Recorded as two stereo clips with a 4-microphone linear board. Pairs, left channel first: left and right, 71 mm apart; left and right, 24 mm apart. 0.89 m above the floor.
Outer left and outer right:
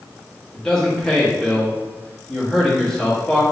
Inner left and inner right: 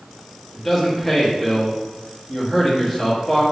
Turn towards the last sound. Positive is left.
turn(degrees=5)  # may be behind; listen again after turning